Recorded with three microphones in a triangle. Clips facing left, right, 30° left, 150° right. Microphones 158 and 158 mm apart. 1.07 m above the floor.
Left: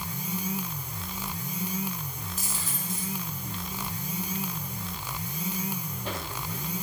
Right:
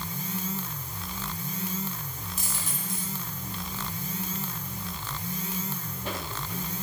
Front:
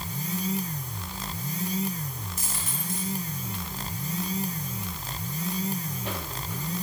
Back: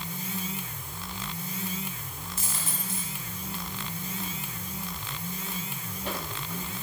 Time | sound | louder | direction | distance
2.4 | a dropped coin | right 1 dB, back 1 dB | 90° right | 3 m